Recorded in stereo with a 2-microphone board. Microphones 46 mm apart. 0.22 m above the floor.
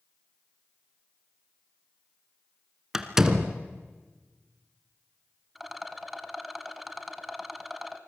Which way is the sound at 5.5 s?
Centre (ahead or behind).